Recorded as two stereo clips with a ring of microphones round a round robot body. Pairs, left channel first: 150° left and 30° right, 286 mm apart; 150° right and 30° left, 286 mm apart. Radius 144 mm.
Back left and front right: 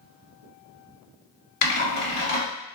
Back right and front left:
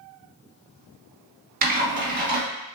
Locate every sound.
1.6 s typing on a keyboard: 90° left, 1.2 m